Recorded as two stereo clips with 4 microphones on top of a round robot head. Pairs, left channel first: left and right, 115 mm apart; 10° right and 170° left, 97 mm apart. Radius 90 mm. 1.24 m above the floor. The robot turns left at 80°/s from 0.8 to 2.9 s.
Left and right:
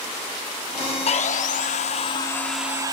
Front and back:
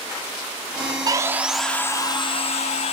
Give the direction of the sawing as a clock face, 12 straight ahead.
8 o'clock.